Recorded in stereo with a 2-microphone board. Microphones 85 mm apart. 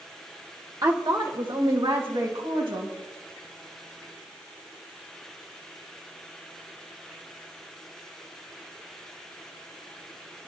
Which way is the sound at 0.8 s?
45° right (ahead or behind).